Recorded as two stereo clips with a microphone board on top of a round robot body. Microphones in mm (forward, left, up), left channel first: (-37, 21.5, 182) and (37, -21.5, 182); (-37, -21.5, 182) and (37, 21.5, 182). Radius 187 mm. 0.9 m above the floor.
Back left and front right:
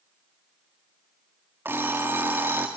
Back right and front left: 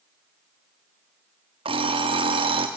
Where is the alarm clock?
35° left, 0.5 m.